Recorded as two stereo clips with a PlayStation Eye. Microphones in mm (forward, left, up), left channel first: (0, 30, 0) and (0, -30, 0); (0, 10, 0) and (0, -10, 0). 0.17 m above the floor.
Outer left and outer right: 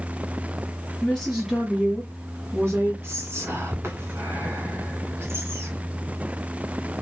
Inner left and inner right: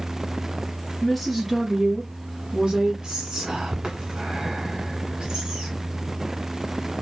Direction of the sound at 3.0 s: 45° right (ahead or behind).